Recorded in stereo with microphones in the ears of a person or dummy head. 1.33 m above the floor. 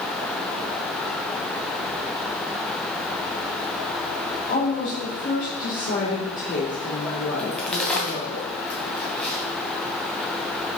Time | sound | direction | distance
4.5 | a woman speaking | 45° left (ahead or behind) | 2.5 m
7.4 | a crack | 5° left (ahead or behind) | 1.8 m